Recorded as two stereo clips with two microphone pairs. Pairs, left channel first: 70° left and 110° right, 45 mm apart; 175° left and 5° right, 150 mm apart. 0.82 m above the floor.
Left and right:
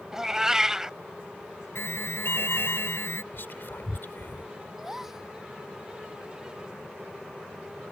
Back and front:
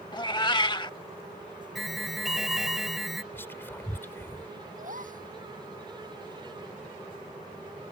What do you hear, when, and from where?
0.1 s a cat meowing: 175° right
1.8 s an alarm: 85° left
3.3 s whispering: 100° left
4.8 s a gasp: 30° right